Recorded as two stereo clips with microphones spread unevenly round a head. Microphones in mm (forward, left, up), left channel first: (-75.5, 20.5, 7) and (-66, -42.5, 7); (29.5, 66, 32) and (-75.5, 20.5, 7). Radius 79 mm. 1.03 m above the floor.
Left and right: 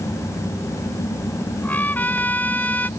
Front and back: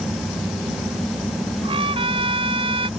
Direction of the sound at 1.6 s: 160° left.